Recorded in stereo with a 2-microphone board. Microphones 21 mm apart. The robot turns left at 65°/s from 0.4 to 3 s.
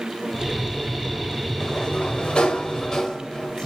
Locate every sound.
1.6 s a sliding door: 135° left, 1.4 m; by 3.7 s 45° left, 1.4 m